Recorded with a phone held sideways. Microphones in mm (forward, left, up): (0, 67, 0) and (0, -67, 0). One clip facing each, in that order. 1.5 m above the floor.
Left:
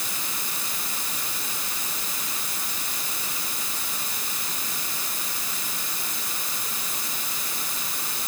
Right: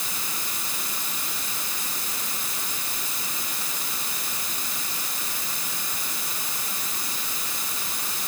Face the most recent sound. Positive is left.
No sound to turn to.